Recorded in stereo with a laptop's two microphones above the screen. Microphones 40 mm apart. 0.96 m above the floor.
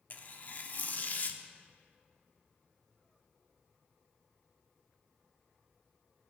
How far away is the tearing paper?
About 0.6 m.